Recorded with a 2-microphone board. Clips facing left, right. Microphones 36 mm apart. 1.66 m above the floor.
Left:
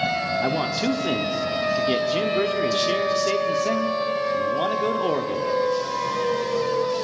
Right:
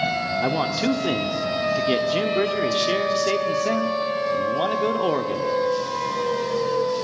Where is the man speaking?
10° right (ahead or behind), 0.6 m.